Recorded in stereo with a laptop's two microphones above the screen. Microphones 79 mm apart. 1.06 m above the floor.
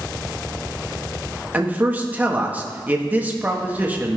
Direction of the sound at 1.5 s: 20° right (ahead or behind).